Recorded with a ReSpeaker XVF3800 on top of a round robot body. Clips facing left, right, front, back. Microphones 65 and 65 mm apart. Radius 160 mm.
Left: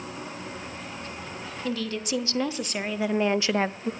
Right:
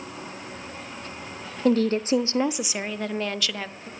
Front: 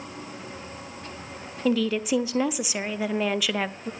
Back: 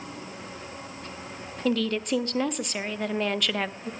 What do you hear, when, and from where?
1.6 s a woman speaking: 85° right, 1.1 m; by 3.9 s 85° left, 1.0 m